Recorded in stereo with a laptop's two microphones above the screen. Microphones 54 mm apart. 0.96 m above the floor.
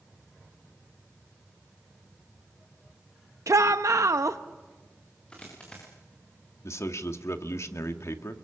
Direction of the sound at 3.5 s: 70° right (ahead or behind).